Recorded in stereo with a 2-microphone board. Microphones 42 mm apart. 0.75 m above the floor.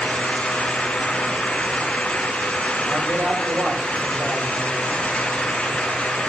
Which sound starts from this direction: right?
A man speaking, at 2.9 s.